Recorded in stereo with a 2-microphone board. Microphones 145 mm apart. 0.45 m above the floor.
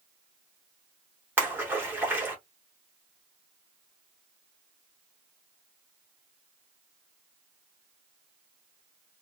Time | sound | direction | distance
1.4 | a splash | 15° right (ahead or behind) | 1.2 m